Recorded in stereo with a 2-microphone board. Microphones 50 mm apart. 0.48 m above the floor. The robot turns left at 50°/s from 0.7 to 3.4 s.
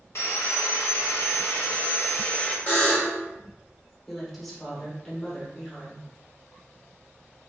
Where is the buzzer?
35° left (ahead or behind), 1.3 m; by 3.2 s 45° left (ahead or behind), 1.3 m.